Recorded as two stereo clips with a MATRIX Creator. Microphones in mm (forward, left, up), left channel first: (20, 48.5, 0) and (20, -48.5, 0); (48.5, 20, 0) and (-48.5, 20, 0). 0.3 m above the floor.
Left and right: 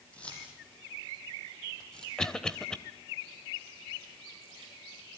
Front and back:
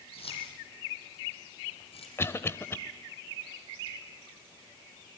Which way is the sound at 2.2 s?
15° left.